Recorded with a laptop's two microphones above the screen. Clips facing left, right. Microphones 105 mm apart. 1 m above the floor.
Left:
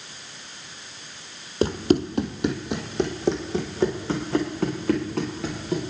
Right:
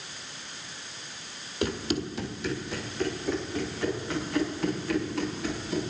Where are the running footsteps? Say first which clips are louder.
Left 8 dB; 35° left (ahead or behind), 1.8 m; by 5.8 s 65° left (ahead or behind), 6.5 m.